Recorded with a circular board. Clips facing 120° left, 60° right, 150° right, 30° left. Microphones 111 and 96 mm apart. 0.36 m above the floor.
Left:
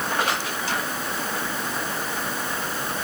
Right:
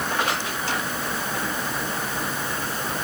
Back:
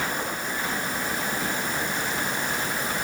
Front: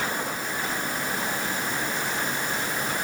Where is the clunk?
I don't hear a clunk.